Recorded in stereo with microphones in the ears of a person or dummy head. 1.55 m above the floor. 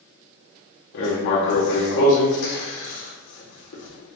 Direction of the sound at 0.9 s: 70° left (ahead or behind).